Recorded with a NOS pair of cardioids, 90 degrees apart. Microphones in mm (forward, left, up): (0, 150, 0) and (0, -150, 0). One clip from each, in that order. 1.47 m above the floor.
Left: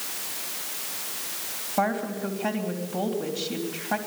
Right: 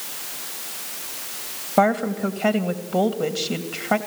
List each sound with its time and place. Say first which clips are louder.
1.8 s a woman speaking: right 7 dB; 55° right, 2.5 m